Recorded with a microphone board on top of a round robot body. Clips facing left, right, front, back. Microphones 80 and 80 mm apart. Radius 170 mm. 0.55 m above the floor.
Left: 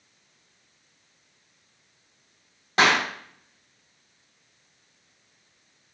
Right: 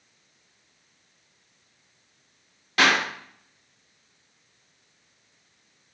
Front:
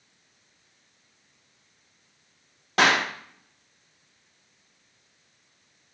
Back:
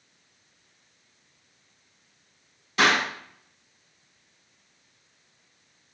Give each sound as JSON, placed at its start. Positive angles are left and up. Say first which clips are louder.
{"t": 2.8, "sound": "a clap", "louder": "left 1 dB, front 1 dB", "azimuth_deg": 30, "distance_m": 4.0}